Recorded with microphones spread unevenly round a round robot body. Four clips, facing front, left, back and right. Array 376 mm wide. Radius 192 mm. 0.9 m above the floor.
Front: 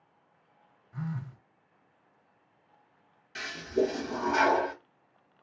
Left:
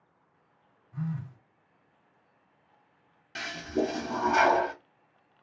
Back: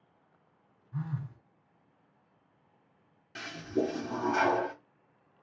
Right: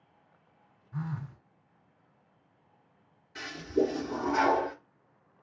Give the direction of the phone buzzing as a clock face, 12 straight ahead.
3 o'clock.